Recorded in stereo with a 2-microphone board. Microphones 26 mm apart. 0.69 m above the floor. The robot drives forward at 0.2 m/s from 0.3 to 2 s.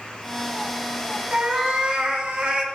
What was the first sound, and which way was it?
A cat meowing, 40° right (ahead or behind).